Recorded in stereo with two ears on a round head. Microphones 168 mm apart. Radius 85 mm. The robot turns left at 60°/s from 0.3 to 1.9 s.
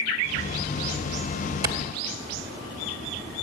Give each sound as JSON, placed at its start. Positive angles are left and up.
{"t": 1.6, "sound": "a clap", "side_deg": -20, "distance_m": 1.8}